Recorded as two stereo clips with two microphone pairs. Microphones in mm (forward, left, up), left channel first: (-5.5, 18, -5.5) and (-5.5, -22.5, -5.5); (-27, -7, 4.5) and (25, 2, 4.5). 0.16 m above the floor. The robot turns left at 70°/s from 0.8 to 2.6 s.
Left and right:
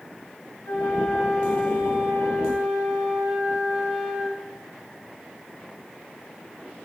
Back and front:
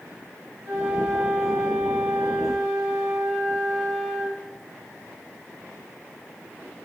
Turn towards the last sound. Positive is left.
turn(degrees=-80)